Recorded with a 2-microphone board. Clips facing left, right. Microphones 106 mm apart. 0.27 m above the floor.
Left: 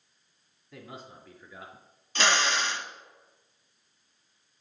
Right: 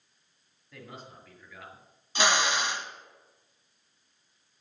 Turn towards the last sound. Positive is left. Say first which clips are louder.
# even
turn(degrees=-15)  # may be behind; listen again after turning